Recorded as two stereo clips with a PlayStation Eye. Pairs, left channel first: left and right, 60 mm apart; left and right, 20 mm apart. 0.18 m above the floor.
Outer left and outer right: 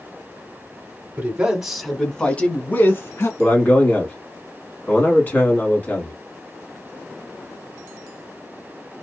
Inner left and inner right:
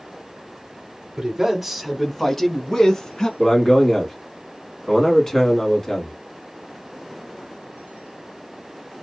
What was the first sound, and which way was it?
A man speaking, 25° right (ahead or behind).